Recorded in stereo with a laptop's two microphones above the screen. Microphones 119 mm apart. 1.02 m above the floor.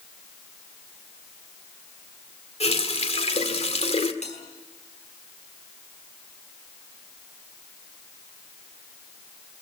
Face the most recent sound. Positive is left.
turn(degrees=70)  # may be behind; listen again after turning